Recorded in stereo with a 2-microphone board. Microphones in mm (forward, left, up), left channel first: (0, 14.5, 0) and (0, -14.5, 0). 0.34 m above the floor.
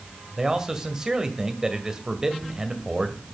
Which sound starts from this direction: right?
A man speaking, at 0.4 s.